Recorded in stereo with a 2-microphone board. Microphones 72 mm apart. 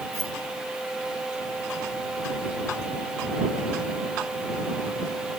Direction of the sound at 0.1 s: 60° left (ahead or behind).